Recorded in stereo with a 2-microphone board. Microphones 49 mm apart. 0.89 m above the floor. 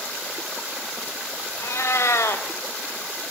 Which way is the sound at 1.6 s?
70° left (ahead or behind).